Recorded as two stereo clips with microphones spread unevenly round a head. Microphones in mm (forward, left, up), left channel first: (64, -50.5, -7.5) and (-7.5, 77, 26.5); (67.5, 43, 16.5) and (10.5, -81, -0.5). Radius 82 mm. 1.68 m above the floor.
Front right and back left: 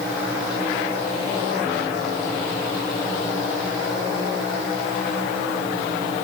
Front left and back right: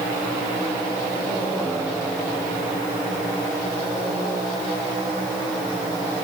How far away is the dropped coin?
No dropped coin in this recording.